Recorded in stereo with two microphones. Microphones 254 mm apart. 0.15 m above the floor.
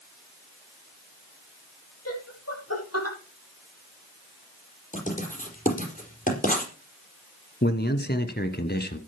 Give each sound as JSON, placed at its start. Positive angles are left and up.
{"t": 2.0, "sound": "laughter", "side_deg": 70, "distance_m": 5.5}
{"t": 4.9, "sound": "writing", "side_deg": 30, "distance_m": 4.5}
{"t": 7.6, "sound": "a man speaking", "side_deg": 40, "distance_m": 1.6}